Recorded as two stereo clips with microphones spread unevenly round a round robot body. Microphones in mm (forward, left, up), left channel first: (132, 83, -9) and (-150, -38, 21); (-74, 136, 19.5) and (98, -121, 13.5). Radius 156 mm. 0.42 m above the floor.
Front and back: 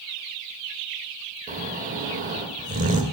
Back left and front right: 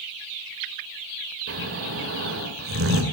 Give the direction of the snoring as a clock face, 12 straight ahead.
3 o'clock.